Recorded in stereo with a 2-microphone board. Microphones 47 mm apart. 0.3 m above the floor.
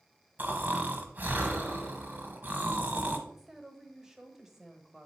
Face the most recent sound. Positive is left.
turn(degrees=-10)  # may be behind; listen again after turning